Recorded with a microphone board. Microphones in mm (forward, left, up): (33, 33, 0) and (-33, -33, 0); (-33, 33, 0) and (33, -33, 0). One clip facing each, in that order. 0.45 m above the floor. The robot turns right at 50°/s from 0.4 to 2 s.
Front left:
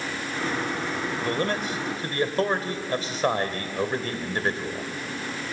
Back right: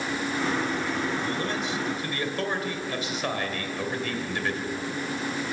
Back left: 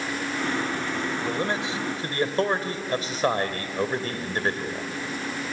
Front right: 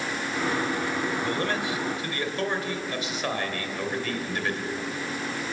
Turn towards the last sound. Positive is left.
turn(degrees=90)